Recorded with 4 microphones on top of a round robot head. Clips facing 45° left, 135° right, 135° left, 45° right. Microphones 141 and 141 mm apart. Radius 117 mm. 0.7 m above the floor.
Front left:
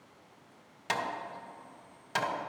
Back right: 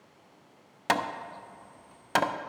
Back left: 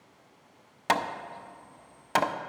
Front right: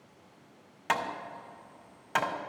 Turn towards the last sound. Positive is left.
turn(degrees=-165)